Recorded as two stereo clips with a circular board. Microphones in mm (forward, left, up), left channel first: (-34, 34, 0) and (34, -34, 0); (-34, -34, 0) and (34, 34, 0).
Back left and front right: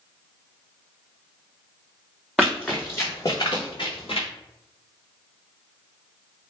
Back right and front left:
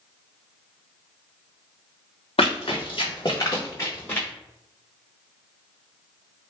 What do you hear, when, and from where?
2.4 s running footsteps: 135° right, 0.9 m; by 4.3 s 150° left, 1.2 m